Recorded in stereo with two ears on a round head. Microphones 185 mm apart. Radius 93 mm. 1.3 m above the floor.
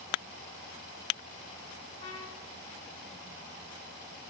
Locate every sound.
2.0 s a trumpet: 30° left (ahead or behind), 3.5 m